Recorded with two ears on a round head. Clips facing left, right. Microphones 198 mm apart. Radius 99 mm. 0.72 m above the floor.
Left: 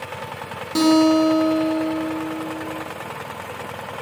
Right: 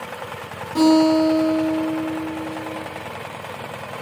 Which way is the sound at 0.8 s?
55° left (ahead or behind).